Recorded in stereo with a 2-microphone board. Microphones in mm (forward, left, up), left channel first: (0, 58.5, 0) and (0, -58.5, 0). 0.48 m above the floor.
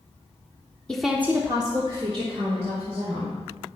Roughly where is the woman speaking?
Centre.